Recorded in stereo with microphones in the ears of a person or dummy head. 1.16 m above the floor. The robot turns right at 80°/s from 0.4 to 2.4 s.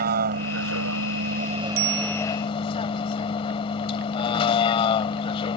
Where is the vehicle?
125° right; by 5.6 s 35° left.